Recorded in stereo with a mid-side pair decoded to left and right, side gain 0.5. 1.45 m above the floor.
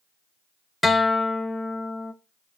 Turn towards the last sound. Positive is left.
turn(degrees=15)